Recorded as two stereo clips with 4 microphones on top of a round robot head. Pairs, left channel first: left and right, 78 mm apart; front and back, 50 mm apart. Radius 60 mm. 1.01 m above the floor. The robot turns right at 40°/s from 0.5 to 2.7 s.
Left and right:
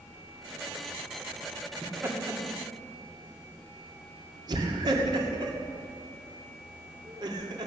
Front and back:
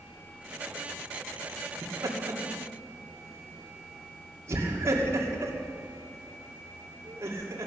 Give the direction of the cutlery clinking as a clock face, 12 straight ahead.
I don't hear cutlery clinking.